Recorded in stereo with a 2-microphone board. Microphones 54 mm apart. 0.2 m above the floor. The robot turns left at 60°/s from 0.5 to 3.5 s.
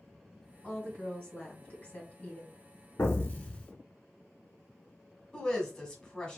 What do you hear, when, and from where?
0.6 s a woman speaking: 10° left (ahead or behind), 1.6 m; by 2.5 s 15° left (ahead or behind), 1.6 m
3.0 s an explosion: 55° left, 0.6 m; by 3.7 s 20° left, 0.6 m
5.3 s a woman speaking: 15° left (ahead or behind), 1.1 m